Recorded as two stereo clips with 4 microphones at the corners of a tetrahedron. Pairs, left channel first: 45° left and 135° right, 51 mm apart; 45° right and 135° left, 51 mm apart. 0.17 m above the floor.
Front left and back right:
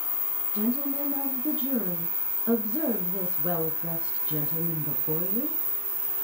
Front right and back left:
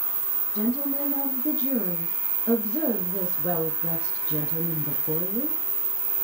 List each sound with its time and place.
0.5 s a woman speaking: 75° right, 1.9 m